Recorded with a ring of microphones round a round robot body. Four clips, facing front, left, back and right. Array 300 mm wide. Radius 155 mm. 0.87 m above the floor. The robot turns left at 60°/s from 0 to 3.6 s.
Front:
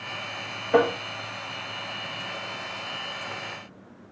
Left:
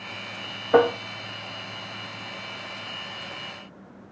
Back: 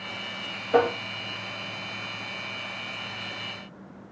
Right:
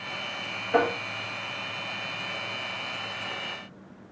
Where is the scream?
I don't hear a scream.